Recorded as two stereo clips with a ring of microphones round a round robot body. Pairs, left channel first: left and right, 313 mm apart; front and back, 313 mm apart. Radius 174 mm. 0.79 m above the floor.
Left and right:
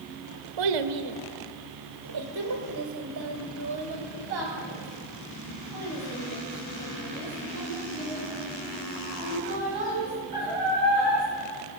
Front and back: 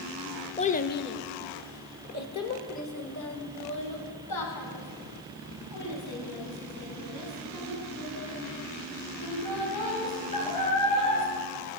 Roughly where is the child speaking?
Right.